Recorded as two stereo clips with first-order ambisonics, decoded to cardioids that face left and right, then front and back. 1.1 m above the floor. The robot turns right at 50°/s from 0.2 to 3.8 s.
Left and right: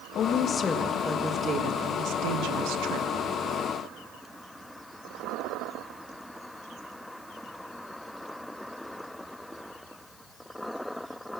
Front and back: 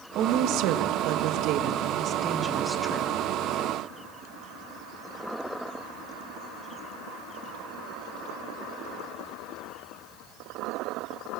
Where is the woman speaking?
140° left, 1.7 m; by 3.1 s 75° right, 1.7 m.